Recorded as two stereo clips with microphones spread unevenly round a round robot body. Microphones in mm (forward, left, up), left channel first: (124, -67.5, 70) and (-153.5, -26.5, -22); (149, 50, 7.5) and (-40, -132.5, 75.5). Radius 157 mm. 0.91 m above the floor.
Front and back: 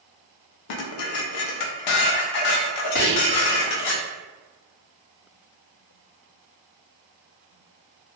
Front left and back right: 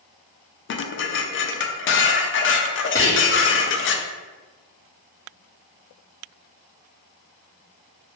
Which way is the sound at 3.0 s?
25° right.